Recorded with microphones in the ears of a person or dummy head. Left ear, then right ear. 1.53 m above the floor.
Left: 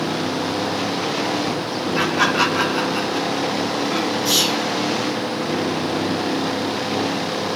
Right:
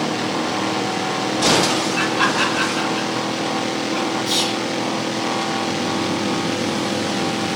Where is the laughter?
60° left (ahead or behind), 3 m; by 4.2 s 35° left (ahead or behind), 3 m.